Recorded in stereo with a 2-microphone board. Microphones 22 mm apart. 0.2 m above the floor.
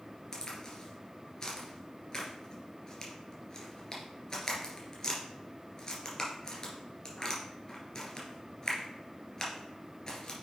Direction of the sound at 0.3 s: 30° left (ahead or behind).